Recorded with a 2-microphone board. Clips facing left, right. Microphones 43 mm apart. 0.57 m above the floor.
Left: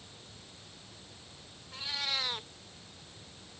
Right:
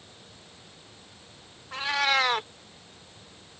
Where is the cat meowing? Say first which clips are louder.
Right 12 dB; 70° right (ahead or behind).